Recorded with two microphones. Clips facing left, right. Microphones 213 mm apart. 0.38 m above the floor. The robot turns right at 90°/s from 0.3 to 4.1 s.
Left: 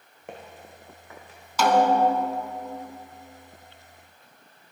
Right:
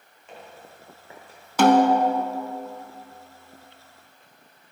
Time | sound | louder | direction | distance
0.3 | footsteps | left 2 dB | 55° left (ahead or behind) | 1.6 m
1.6 | a snare drum | right 3 dB | 55° right | 0.7 m